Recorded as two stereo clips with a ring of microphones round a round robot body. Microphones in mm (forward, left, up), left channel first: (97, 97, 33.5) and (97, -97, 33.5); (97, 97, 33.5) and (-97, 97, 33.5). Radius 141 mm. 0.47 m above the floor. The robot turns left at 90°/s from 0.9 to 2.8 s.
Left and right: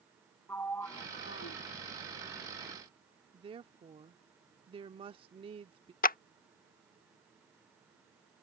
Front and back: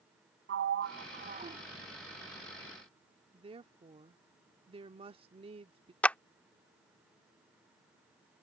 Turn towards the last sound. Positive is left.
turn(degrees=80)